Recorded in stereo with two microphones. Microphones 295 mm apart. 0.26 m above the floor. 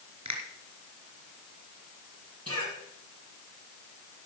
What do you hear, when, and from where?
0.2 s a finger snap: 70° right (ahead or behind), 3 m
2.5 s a cough: 50° right (ahead or behind), 7.5 m